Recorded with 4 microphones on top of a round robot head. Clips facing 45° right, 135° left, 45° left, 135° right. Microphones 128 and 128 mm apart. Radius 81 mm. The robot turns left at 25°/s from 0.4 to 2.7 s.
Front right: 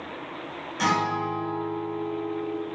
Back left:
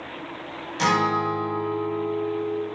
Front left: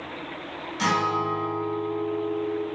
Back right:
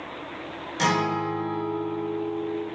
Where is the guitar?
170° right, 1.0 m; by 2.6 s 145° left, 1.0 m.